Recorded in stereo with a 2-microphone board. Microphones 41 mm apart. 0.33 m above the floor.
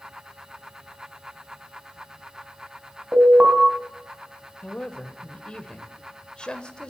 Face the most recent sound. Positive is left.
turn(degrees=25)  # may be behind; listen again after turning